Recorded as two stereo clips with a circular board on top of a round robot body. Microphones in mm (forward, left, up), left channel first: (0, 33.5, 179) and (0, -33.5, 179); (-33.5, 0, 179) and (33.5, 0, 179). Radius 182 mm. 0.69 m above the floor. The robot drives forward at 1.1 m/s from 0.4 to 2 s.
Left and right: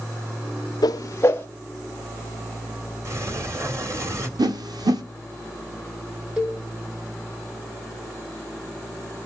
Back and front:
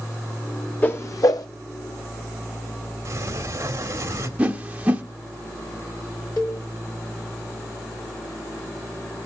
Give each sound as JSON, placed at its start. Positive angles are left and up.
{"t": 0.8, "sound": "a whoosh", "azimuth_deg": 110, "distance_m": 0.6}
{"t": 3.0, "sound": "a sliding door", "azimuth_deg": -50, "distance_m": 2.5}
{"t": 4.4, "sound": "a whoosh", "azimuth_deg": -75, "distance_m": 0.9}
{"t": 6.4, "sound": "a cowbell", "azimuth_deg": -165, "distance_m": 3.5}